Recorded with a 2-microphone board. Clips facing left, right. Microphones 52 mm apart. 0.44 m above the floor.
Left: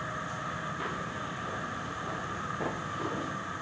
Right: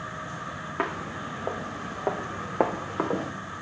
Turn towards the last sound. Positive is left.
turn(degrees=-70)  # may be behind; listen again after turning